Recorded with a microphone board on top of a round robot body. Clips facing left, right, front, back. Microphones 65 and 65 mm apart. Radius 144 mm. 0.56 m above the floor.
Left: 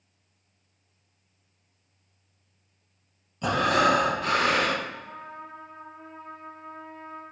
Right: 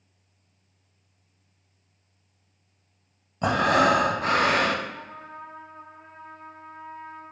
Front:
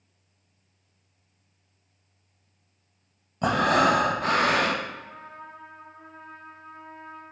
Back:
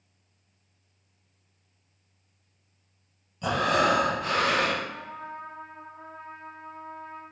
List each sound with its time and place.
3.4 s breathing: 40° right, 0.8 m
4.8 s a trumpet: 165° right, 2 m